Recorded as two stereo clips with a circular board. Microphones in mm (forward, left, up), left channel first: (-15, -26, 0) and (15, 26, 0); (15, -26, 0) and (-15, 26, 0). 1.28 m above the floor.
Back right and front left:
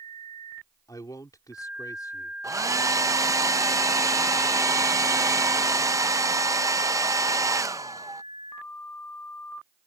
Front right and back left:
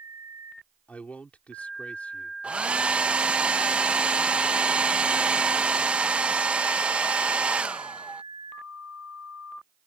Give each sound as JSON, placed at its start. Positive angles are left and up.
{"t": 0.9, "sound": "a man speaking", "azimuth_deg": -125}
{"t": 2.4, "sound": "a hair dryer", "azimuth_deg": 50}